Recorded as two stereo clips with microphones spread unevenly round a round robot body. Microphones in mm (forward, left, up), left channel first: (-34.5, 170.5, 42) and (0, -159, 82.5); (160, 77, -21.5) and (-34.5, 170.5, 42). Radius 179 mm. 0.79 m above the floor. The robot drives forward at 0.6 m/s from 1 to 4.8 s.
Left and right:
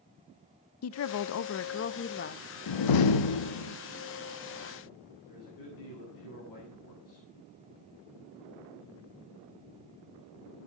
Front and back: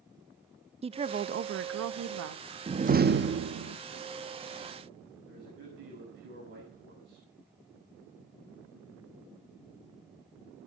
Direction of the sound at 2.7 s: 85° left.